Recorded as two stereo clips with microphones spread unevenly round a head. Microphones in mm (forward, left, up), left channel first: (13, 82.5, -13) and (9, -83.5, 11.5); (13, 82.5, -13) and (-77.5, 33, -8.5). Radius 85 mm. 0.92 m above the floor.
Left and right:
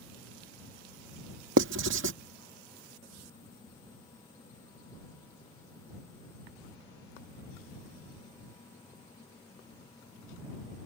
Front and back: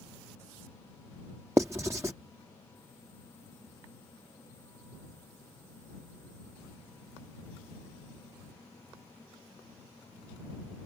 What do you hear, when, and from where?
1.6 s writing: 75° right